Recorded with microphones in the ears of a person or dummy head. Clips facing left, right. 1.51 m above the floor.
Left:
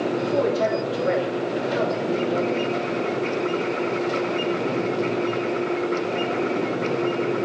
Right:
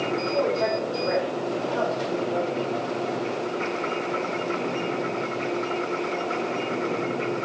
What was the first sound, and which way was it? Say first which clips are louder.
A man speaking: left 2 dB; 55° left (ahead or behind).